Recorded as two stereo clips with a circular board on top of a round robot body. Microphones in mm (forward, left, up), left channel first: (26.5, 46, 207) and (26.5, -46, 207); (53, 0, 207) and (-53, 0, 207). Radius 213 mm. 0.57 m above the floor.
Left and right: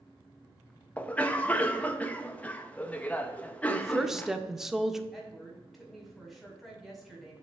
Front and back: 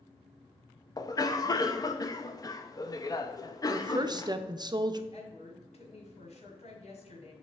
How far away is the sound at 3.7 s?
About 0.8 m.